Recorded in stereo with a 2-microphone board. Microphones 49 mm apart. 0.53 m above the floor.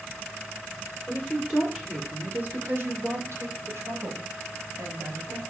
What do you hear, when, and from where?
1.1 s a woman speaking: centre (ahead or behind), 2.5 m; by 5.4 s 65° right (ahead or behind), 4.5 m